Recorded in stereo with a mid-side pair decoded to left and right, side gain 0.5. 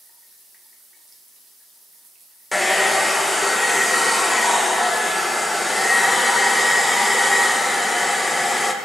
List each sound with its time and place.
2.5 s a hair dryer: 10° left, 1.2 m